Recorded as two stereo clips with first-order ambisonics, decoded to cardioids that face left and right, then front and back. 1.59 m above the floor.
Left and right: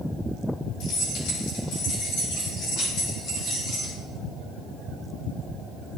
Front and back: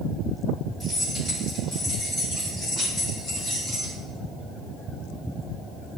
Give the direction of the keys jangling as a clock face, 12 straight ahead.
9 o'clock.